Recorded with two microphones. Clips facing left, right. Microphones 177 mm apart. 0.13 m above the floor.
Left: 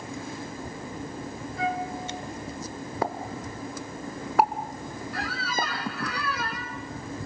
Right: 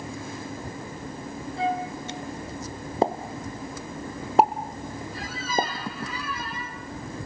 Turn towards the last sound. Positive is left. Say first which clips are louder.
# right 4 dB
turn(degrees=70)  # may be behind; listen again after turning